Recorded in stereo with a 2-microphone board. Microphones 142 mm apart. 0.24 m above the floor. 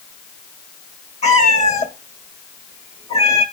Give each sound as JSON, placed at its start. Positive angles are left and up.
{"t": 1.2, "sound": "a cat meowing", "side_deg": 50, "distance_m": 1.8}